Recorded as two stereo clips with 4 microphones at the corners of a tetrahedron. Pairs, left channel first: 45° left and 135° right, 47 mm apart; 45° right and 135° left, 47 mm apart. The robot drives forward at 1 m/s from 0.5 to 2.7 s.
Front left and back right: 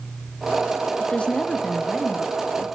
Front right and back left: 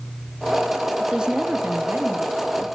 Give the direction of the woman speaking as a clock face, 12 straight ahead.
10 o'clock.